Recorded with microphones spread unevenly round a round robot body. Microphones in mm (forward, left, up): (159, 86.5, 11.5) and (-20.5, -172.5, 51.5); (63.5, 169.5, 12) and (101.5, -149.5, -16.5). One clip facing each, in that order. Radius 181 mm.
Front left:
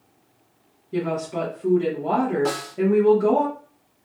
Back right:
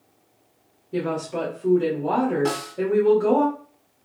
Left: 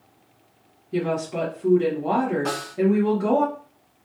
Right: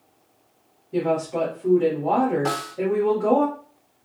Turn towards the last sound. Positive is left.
turn(degrees=-15)